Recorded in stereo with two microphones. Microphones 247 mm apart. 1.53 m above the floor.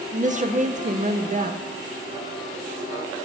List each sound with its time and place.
0.1 s a woman speaking: 30° right (ahead or behind), 0.7 m